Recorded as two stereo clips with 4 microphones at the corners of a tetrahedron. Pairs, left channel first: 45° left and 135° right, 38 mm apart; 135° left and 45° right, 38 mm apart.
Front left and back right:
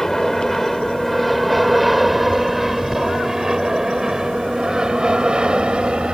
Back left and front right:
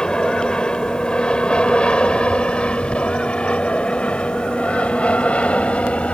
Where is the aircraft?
110° left; by 6.1 s 170° left.